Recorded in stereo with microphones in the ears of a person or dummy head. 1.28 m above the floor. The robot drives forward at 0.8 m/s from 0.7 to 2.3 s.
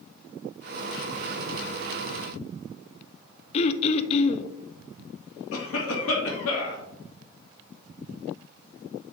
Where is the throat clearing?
35° left (ahead or behind), 0.5 m.